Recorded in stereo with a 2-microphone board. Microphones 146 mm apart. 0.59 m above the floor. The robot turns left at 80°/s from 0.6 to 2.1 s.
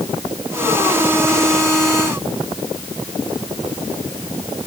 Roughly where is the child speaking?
No child speaking in this recording.